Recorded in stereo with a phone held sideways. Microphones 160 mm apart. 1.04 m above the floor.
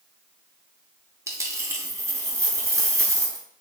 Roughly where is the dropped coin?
Centre.